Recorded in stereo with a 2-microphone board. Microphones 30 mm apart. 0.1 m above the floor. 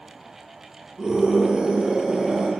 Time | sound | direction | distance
1.0 | a scream | 30° right (ahead or behind) | 3 m